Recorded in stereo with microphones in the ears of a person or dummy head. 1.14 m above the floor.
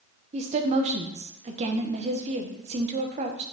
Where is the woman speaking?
35° right (ahead or behind), 0.8 m.